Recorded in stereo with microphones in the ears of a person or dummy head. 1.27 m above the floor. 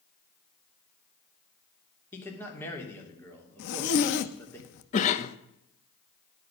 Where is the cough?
45° left (ahead or behind), 1.0 m.